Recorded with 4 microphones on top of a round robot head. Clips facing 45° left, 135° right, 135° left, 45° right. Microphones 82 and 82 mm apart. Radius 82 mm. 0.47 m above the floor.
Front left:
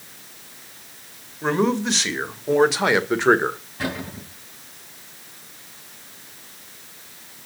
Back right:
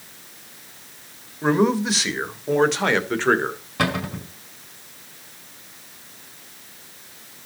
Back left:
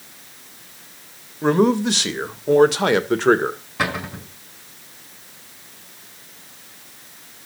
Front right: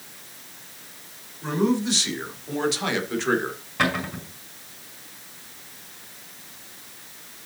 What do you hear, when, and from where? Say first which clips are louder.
1.4 s a man speaking: back right 2 dB, back left 6 dB; 145° left, 2.5 m; by 3.6 s 110° left, 2.0 m
3.8 s a cupboard door: back right 6 dB, front right 1 dB; 140° right, 5 m